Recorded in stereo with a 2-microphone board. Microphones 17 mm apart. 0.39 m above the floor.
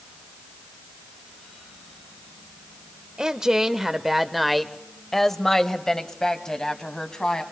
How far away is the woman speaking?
About 1.0 m.